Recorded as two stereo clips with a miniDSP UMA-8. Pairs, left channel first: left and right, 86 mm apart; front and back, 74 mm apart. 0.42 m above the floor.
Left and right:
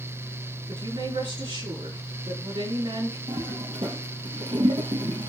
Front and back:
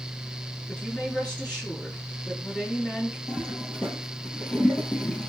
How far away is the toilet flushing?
About 3 m.